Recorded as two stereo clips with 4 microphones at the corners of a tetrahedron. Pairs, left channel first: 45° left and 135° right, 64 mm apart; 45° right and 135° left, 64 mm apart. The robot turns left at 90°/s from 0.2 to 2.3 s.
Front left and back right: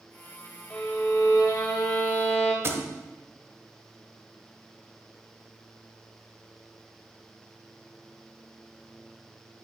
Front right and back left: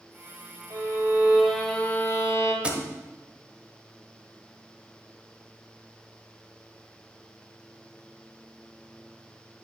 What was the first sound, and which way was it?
A violin, 115° left.